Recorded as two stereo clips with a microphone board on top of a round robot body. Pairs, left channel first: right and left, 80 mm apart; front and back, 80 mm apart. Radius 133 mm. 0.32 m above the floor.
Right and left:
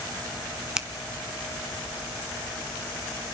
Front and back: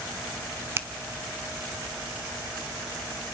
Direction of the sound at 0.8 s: 165° left.